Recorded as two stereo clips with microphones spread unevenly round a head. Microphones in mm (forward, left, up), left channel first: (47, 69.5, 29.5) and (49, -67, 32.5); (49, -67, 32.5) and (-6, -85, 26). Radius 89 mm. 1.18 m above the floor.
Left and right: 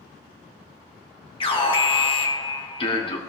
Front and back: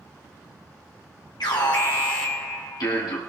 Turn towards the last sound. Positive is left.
turn(degrees=40)